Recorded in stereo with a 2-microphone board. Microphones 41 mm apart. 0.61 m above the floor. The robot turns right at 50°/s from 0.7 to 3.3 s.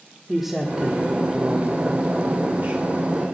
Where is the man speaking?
170° right, 1.6 m; by 3.2 s 40° right, 1.6 m.